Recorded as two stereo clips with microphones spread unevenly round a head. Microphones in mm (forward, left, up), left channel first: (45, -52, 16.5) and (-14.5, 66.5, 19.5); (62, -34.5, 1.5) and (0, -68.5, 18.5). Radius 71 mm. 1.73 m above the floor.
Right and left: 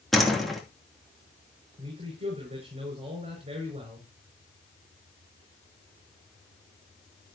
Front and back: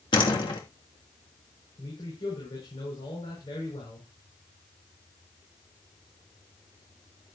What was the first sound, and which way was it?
A door slam, 25° left.